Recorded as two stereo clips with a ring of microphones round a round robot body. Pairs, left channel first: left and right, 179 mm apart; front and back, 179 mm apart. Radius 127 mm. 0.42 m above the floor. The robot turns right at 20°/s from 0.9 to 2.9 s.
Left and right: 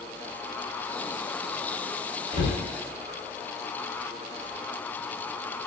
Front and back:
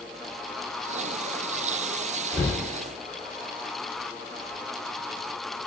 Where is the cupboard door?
80° right, 1.3 m; by 2.6 s 75° right, 1.3 m.